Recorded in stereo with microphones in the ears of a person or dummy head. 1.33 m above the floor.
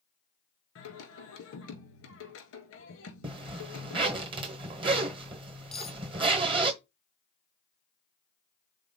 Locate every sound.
0.8 s singing: 80° left, 2 m
3.2 s a zipper: 30° right (ahead or behind), 1.0 m
5.7 s cutlery clinking: 5° left (ahead or behind), 0.8 m